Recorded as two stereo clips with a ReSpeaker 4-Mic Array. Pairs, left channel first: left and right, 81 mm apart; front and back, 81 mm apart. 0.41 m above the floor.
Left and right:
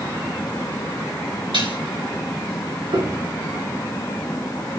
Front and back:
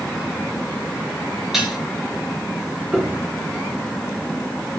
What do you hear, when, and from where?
1.5 s dishes clattering: 95° right, 5 m
2.9 s a piano: 95° right, 3.5 m